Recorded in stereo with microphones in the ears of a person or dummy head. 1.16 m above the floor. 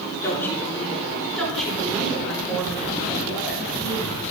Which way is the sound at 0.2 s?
15° left (ahead or behind).